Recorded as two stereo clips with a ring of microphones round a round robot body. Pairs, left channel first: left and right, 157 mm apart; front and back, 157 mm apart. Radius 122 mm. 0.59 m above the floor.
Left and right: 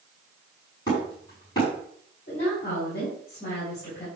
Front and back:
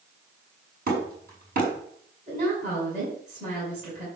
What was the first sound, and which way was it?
Hammering, 160° left.